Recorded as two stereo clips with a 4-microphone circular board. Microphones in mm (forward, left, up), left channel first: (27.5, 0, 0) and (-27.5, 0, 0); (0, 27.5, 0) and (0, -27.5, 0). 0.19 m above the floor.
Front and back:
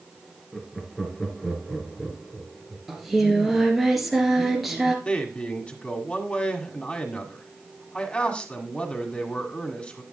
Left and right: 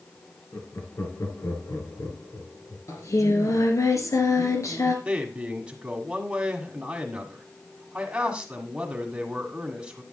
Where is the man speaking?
40° right, 1.7 m.